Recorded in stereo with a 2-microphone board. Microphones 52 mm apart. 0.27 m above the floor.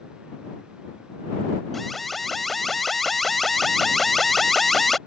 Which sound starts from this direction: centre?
An alarm, at 1.7 s.